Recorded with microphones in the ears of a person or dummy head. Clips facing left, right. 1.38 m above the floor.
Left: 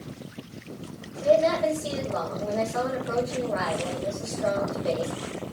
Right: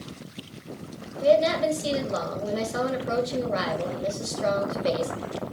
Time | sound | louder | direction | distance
1.2 | a woman speaking | right 1 dB | 45° right (ahead or behind) | 2.5 m